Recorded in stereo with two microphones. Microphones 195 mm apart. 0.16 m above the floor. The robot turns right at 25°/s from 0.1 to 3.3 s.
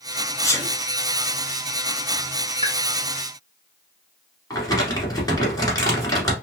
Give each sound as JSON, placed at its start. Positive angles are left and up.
{"t": 0.4, "sound": "a sneeze", "side_deg": 15, "distance_m": 1.0}
{"t": 2.6, "sound": "a pop", "side_deg": -25, "distance_m": 1.2}
{"t": 4.5, "sound": "crumpling", "side_deg": 20, "distance_m": 1.6}